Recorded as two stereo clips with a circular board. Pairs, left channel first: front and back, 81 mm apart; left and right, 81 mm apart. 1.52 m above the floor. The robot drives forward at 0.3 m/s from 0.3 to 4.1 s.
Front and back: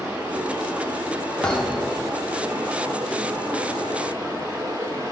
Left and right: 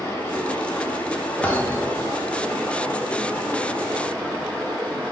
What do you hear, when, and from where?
0.0 s running water: 130° left, 1.5 m; by 5.1 s 155° left, 2.5 m
1.4 s a thud: 65° left, 0.8 m; by 2.1 s 105° left, 0.8 m